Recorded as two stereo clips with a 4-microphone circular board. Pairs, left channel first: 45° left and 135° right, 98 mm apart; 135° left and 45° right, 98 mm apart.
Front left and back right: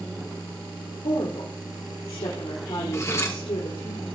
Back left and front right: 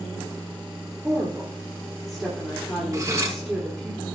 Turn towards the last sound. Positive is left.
turn(degrees=0)